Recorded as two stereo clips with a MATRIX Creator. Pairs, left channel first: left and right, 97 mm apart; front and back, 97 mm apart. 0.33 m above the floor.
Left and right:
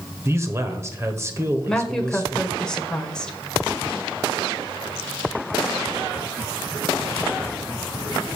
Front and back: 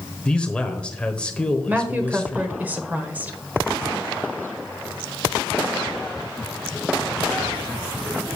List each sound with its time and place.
0.2 s a man speaking: 70° right, 1.1 m
1.7 s a woman speaking: 155° left, 1.1 m